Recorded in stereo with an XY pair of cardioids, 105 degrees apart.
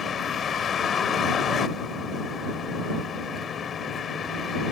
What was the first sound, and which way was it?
A vehicle, 50° left.